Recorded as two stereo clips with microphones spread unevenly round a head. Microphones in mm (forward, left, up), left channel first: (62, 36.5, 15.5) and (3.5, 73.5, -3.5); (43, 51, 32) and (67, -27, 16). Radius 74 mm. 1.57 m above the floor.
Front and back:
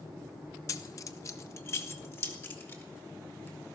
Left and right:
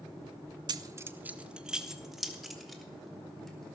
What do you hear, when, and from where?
0.7 s keys jangling: 40° right, 0.8 m; by 3.8 s 25° left, 5 m